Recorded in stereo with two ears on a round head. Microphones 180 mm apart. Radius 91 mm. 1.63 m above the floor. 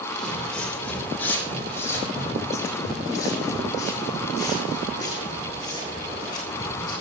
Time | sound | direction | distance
0.1 | footsteps | centre (ahead or behind) | 3 m